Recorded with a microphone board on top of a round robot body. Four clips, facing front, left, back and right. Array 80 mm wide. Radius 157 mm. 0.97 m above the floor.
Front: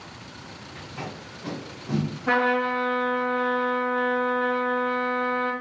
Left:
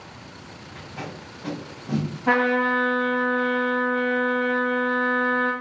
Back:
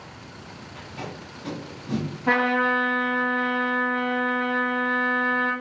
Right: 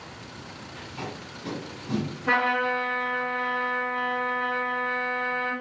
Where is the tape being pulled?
70° left, 1.2 m.